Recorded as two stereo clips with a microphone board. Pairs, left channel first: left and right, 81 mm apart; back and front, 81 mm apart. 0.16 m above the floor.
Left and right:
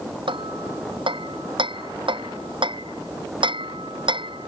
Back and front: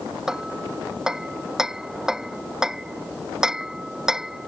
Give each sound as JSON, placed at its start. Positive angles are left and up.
{"t": 0.3, "sound": "hammering", "azimuth_deg": -85}